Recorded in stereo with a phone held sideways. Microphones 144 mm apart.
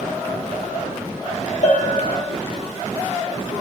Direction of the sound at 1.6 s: 70° left (ahead or behind).